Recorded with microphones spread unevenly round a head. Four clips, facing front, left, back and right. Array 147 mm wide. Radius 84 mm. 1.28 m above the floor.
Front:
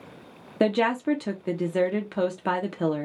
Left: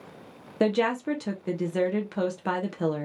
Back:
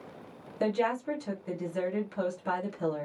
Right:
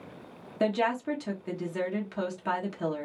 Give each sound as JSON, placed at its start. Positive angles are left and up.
{"t": 0.6, "sound": "a woman speaking", "azimuth_deg": 25, "distance_m": 0.7}